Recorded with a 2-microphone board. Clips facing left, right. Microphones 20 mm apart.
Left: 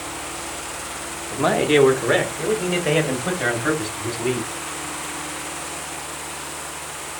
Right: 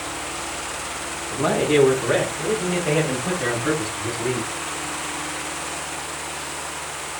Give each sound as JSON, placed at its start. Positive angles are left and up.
{"t": 1.3, "sound": "a man speaking", "side_deg": 25, "distance_m": 0.9}